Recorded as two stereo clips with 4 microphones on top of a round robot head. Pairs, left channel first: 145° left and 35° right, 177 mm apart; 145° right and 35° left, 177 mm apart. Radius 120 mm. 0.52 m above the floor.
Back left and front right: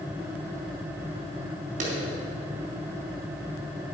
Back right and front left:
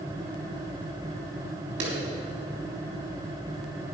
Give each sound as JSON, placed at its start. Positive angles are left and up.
{"t": 1.8, "sound": "a clap", "azimuth_deg": 15, "distance_m": 4.0}